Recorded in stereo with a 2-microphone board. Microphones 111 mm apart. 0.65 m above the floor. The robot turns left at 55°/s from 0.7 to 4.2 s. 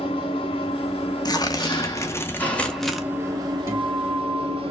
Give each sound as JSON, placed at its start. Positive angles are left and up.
{"t": 0.0, "sound": "an engine running", "azimuth_deg": 110, "distance_m": 1.2}
{"t": 1.2, "sound": "tearing paper", "azimuth_deg": 90, "distance_m": 0.8}
{"t": 3.7, "sound": "a guitar", "side_deg": -25, "distance_m": 2.5}